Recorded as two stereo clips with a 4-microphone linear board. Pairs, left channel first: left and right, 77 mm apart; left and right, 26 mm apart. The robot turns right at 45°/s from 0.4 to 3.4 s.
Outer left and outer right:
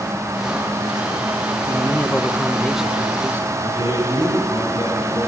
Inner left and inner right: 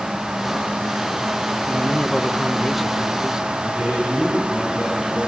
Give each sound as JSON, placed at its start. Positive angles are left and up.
{"t": 1.7, "sound": "a man speaking", "azimuth_deg": 135, "distance_m": 1.4}
{"t": 3.6, "sound": "a man speaking", "side_deg": -80, "distance_m": 9.0}